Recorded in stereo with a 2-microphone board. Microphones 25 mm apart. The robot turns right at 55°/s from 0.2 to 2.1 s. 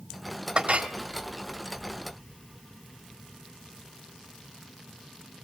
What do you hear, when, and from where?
0.6 s a clink: 45° right (ahead or behind), 1.3 m; by 0.9 s 65° right (ahead or behind), 1.3 m